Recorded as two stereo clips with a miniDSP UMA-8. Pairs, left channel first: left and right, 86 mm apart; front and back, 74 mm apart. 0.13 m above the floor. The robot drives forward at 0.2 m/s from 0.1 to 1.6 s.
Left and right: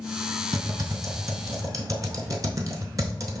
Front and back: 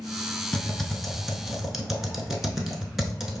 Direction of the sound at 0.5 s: 75° right.